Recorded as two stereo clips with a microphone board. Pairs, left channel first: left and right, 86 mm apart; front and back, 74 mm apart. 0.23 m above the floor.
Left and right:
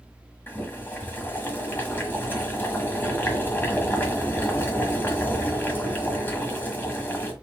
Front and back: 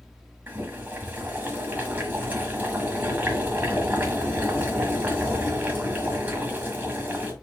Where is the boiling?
135° left, 1.5 m.